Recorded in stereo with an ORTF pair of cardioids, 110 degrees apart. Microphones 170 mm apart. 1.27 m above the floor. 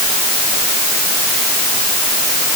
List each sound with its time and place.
Only background noise.